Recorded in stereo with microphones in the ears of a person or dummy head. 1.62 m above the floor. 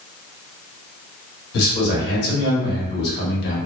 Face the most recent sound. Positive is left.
turn(degrees=60)  # may be behind; listen again after turning